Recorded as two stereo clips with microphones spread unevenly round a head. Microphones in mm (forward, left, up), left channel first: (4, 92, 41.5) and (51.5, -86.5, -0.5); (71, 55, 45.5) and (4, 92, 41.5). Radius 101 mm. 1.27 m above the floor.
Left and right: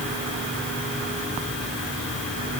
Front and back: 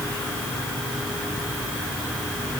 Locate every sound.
Only background noise.